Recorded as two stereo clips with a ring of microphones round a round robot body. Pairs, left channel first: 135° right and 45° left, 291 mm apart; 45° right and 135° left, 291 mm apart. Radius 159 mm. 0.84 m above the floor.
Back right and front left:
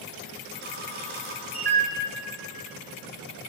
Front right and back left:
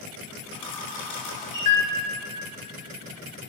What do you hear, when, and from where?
0.5 s a camera shutter: 15° right, 7.5 m